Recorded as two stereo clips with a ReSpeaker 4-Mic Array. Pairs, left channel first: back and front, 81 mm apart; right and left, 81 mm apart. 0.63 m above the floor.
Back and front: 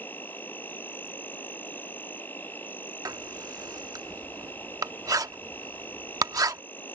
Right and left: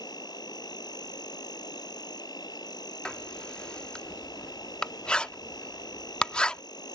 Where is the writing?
15° right.